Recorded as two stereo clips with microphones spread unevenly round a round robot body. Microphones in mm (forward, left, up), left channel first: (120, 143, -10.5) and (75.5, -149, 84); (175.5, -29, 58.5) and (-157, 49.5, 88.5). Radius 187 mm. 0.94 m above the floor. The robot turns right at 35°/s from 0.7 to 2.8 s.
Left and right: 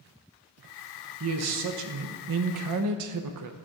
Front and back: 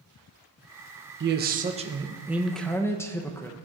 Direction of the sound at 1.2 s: 145° right.